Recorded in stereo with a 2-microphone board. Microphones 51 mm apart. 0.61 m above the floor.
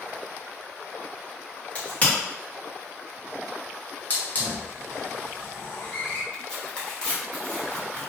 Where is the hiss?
35° left (ahead or behind), 0.8 m.